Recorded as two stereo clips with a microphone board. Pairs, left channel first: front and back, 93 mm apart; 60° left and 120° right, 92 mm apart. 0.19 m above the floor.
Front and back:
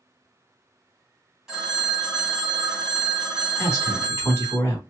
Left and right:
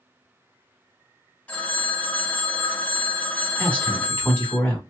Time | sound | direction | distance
1.5 | a phone ringing | 110° left | 1.0 m
3.6 | a man speaking | 5° left | 1.4 m